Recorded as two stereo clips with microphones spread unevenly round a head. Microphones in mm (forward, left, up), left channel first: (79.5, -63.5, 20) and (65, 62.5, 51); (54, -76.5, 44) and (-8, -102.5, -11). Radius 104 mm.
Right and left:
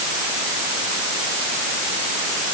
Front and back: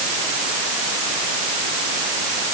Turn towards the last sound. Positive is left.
No sound to turn to.